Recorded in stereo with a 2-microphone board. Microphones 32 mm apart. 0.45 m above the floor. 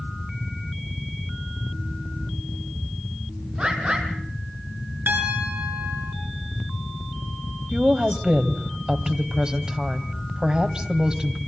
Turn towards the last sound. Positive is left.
turn(degrees=-30)  # may be behind; listen again after turning